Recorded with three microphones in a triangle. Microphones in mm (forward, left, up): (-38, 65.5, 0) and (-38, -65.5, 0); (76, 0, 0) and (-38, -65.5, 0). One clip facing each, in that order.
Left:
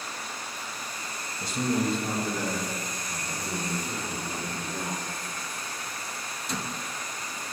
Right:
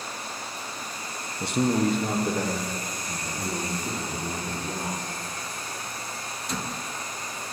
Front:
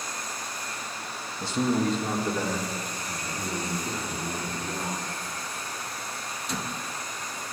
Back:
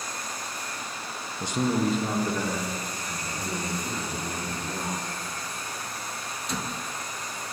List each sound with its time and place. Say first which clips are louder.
1.4 s a man speaking: right 4 dB, even; 80° right, 1.0 m; by 5.0 s 50° right, 5.5 m